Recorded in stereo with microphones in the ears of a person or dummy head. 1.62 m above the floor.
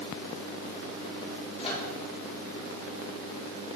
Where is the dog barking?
I don't hear a dog barking.